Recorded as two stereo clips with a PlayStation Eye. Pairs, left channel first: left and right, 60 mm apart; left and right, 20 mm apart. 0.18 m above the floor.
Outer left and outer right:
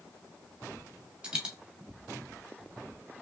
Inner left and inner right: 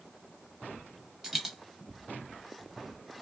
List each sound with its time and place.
1.2 s a dropped coin: 15° right (ahead or behind), 1.3 m